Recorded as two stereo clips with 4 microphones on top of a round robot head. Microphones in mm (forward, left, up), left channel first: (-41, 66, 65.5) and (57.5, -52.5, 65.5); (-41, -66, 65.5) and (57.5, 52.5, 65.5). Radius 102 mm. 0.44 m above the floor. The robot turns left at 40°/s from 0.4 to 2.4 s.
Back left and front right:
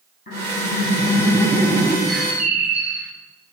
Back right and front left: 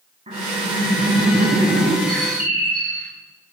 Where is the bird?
45° left, 2.5 m; by 3.1 s 30° left, 2.5 m.